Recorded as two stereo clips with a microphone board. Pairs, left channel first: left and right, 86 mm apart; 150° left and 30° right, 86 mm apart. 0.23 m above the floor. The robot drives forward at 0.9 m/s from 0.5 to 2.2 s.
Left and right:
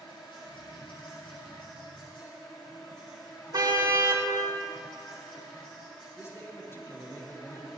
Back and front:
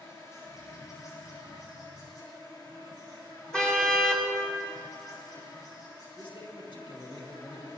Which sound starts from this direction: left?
An insect, at 0.0 s.